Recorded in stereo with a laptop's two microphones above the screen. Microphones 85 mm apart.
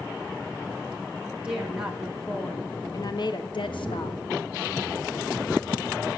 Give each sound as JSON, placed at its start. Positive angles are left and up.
{"t": 1.2, "sound": "a woman speaking", "side_deg": -15, "distance_m": 1.2}
{"t": 3.6, "sound": "a man speaking", "side_deg": 75, "distance_m": 5.5}